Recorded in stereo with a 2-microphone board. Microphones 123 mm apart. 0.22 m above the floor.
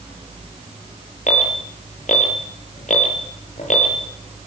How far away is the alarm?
About 8 m.